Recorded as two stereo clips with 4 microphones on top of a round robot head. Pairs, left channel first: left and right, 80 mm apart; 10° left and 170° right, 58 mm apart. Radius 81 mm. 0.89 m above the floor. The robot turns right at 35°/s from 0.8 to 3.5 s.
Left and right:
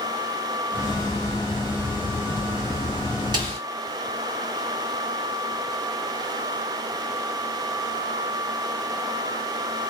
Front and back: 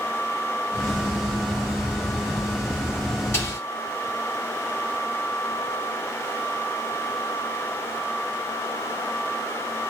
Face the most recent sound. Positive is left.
turn(degrees=-50)